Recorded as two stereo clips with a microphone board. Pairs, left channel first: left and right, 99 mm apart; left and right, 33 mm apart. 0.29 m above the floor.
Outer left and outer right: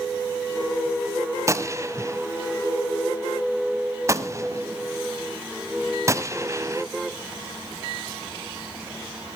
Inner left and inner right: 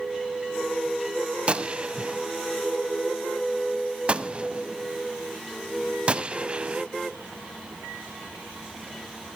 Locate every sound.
1.5 s a gunshot: 30° right (ahead or behind), 0.8 m